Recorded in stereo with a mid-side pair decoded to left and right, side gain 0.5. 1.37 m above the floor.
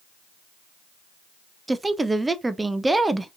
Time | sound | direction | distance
1.7 | a woman speaking | 15° right | 0.5 m